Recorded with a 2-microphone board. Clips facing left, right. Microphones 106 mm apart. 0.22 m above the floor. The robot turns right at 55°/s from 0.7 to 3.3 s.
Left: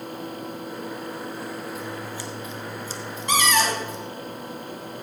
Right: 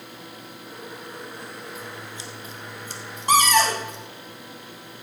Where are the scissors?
Centre (ahead or behind), 1.4 m; by 4.0 s 70° right (ahead or behind), 1.4 m.